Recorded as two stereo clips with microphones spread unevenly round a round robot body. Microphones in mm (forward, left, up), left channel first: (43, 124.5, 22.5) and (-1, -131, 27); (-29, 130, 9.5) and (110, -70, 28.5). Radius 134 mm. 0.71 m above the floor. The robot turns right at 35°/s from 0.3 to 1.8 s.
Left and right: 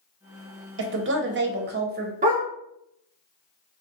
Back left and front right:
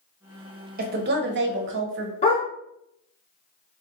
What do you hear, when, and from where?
0.8 s a woman speaking: 100° right, 0.8 m; by 2.1 s 65° right, 0.8 m
2.2 s a dog barking: 165° right, 1.0 m